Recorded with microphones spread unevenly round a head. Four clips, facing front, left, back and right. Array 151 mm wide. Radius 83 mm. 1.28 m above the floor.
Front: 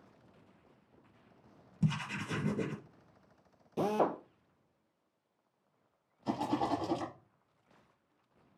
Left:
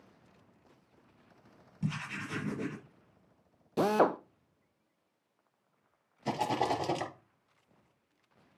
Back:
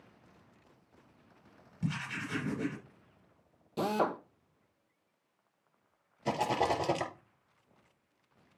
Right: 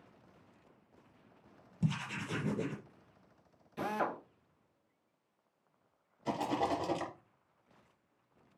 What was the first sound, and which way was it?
Writing, 15° right.